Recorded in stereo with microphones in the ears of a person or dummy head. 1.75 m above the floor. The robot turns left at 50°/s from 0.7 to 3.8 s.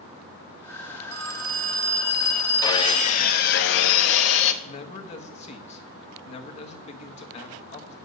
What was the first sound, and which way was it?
A phone ringing, 100° right.